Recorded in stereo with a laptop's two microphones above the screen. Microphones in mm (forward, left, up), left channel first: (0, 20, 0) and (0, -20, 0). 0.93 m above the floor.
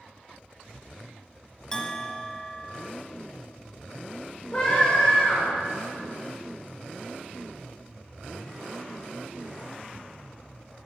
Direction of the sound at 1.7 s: 20° left (ahead or behind).